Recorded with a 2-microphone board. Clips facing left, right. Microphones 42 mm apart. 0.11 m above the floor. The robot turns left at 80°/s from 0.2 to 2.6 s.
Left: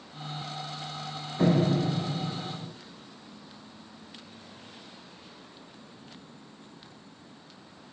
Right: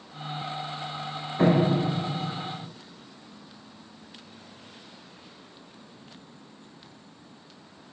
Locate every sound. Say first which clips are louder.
1.4 s a door slam: right 3 dB; 135° right, 1.5 m; by 2.7 s 125° left, 1.5 m